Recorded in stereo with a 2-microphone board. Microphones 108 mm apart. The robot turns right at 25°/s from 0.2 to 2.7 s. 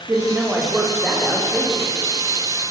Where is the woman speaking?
20° right, 9 m; by 1.9 s 25° left, 9 m.